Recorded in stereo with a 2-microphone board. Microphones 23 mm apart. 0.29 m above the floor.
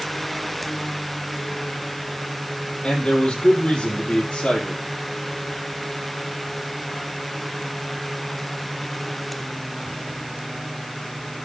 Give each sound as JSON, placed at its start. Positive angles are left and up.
{"t": 2.8, "sound": "a man speaking", "side_deg": 40, "distance_m": 7.5}